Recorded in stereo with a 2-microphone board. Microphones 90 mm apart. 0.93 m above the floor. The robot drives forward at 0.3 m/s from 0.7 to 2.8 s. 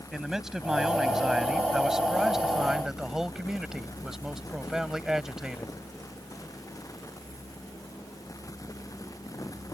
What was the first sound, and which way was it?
A man speaking, 5° right (ahead or behind).